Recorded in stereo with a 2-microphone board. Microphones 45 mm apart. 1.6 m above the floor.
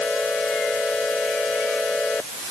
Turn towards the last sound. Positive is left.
No sound to turn to.